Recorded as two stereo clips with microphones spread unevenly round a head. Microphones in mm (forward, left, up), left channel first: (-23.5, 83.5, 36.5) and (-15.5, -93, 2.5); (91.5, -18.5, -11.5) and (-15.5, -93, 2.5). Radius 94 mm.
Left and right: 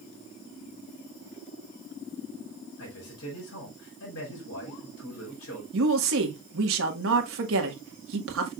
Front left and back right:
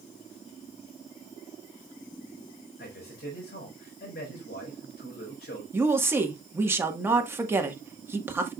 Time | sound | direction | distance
2.8 | a man speaking | 70° left | 4 m
5.7 | a woman speaking | 70° right | 1.7 m